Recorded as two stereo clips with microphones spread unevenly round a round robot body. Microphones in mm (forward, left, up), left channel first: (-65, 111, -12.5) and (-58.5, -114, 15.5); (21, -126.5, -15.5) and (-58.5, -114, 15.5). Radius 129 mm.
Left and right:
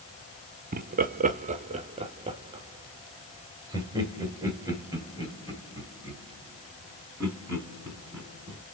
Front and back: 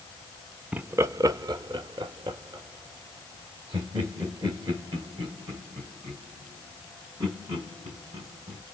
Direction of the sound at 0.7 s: 95° right.